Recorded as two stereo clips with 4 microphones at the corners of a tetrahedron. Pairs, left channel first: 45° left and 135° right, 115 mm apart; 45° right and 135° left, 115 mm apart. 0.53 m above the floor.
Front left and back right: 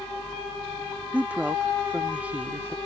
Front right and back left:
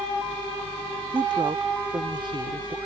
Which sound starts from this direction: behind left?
A woman speaking, at 1.1 s.